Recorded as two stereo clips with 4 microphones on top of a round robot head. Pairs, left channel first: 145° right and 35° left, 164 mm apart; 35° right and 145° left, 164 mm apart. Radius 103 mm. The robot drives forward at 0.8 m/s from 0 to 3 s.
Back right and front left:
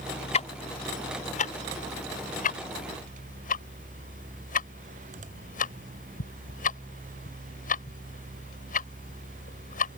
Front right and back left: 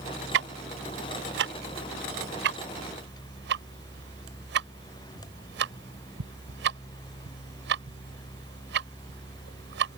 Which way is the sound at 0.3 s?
160° left.